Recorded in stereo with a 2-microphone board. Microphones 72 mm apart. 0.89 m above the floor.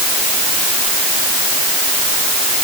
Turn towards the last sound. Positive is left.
No sound to turn to.